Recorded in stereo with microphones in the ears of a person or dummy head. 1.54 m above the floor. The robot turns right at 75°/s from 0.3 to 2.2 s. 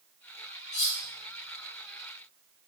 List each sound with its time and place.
0.7 s cutlery clinking: 40° left (ahead or behind), 2.0 m; by 1.0 s 20° left (ahead or behind), 2.0 m